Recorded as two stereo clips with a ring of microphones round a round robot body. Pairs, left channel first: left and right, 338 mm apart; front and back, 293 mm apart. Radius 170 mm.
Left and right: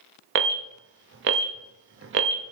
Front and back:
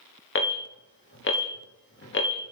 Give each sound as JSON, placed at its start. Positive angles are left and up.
{"t": 0.3, "sound": "an alarm", "azimuth_deg": -45, "distance_m": 1.0}